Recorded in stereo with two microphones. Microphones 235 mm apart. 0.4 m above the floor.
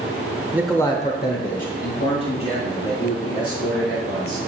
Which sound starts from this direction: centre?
A man speaking, at 0.5 s.